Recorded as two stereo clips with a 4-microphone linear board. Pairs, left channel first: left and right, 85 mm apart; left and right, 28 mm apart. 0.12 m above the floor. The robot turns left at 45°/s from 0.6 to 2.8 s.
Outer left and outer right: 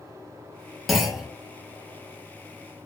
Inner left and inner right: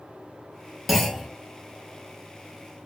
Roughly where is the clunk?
Centre.